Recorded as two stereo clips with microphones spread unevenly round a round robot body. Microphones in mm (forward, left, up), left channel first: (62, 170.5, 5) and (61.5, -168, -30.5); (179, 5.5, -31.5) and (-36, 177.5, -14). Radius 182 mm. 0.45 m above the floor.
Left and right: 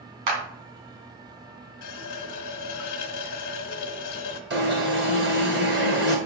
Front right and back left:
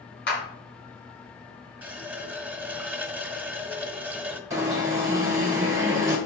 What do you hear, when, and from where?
0.3 s a clap: 100° right, 3 m
1.8 s a running tap: 55° left, 1.3 m
4.5 s an alarm: 135° right, 1.8 m